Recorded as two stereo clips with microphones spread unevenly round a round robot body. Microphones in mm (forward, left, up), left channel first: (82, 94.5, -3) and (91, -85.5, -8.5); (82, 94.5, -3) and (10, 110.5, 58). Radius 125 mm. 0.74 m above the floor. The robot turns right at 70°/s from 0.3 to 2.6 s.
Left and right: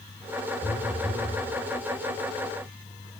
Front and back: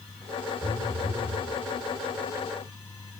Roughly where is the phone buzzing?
Behind left.